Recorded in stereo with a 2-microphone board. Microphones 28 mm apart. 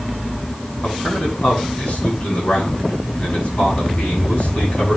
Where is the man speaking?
60° left (ahead or behind), 7 m.